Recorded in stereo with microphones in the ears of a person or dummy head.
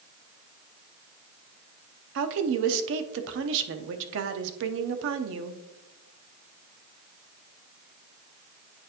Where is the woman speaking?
70° right (ahead or behind), 0.7 m.